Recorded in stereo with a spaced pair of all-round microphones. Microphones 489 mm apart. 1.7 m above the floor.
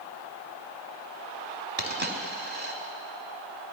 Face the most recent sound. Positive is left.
turn(degrees=-20)  # may be behind; listen again after turning